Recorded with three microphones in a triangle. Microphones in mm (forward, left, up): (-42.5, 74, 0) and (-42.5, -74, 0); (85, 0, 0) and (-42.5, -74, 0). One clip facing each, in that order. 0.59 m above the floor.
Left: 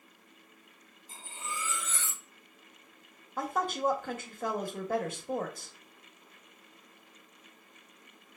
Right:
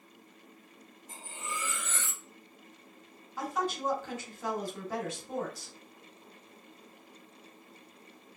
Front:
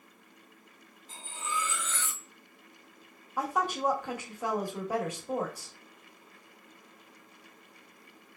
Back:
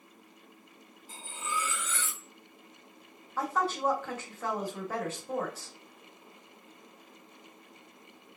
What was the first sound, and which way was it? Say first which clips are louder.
Cutlery clinking: right 1 dB, even; 70° right.